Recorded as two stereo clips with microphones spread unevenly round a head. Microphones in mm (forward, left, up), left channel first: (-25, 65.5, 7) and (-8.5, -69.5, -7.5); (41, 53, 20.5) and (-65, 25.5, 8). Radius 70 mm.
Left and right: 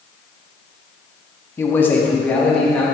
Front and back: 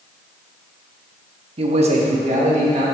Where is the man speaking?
165° left, 0.9 m; by 2.9 s straight behind, 2.5 m.